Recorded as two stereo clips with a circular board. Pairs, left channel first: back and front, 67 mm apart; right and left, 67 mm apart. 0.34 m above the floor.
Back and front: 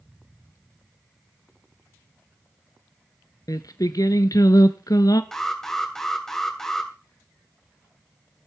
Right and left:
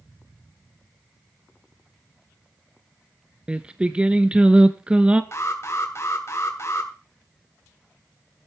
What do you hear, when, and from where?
3.5 s singing: 165° left, 0.8 m
5.3 s an alarm: 100° right, 2.5 m